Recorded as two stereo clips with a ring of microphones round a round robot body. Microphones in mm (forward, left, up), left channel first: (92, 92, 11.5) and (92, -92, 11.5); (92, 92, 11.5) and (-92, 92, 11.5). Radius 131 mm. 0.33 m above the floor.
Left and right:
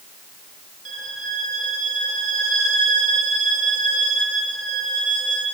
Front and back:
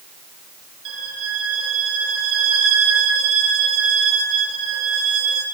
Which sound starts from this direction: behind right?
A violin, at 0.8 s.